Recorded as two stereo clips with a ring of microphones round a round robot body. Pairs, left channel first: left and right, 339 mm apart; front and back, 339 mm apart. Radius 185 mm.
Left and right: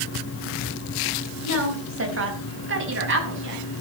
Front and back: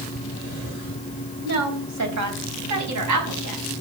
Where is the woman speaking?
140° right, 3.5 m; by 3.6 s 145° right, 6 m.